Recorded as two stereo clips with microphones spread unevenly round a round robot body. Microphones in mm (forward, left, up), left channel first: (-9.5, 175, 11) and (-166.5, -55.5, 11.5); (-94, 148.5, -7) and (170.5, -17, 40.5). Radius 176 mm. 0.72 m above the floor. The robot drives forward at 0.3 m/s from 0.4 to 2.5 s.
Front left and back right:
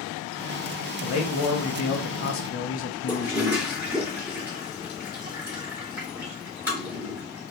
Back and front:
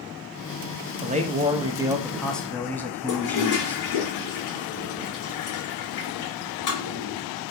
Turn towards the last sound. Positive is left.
turn(degrees=155)